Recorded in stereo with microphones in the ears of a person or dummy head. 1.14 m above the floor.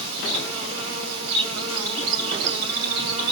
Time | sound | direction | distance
0.0 | an insect | 80° right | 3 m